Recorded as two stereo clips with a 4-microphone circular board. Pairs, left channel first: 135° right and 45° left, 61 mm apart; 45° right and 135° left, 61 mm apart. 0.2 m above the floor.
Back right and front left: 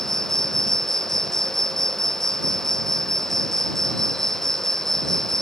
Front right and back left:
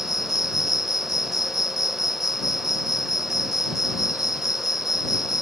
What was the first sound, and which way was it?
An insect, 50° right.